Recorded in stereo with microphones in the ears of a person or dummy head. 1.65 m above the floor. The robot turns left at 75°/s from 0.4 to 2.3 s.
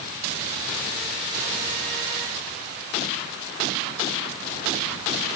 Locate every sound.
Only background noise.